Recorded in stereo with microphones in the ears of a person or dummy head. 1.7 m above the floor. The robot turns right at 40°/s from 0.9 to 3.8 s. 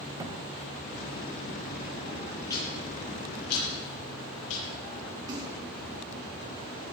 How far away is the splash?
About 4 m.